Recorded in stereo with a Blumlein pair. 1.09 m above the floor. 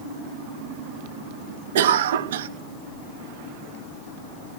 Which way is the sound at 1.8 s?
60° right.